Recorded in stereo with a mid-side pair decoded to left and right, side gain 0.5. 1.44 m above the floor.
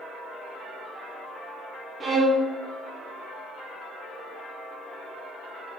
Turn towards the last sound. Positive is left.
turn(degrees=-35)